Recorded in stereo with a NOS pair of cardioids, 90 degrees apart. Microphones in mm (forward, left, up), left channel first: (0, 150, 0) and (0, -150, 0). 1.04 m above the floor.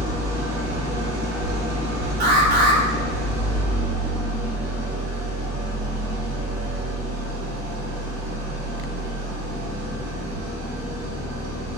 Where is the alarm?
30° right, 1.2 m.